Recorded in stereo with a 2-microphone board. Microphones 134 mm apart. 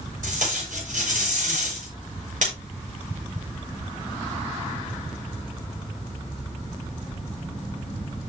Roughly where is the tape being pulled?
Right.